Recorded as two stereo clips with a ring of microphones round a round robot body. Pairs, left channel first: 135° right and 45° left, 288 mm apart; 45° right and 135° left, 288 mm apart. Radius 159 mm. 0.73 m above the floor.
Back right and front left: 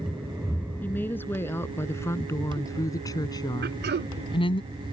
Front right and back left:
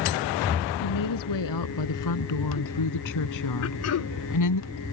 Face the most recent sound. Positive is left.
turn(degrees=-10)